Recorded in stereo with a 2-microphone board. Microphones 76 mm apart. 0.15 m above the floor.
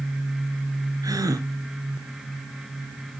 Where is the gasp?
50° right (ahead or behind), 1.6 m.